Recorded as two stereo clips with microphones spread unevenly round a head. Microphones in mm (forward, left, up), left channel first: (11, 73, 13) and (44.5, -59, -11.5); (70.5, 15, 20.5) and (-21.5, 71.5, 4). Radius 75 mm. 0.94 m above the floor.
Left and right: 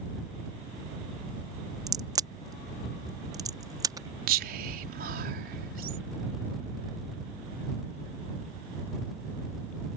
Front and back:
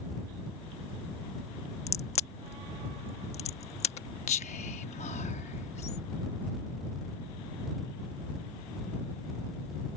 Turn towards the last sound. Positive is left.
turn(degrees=-75)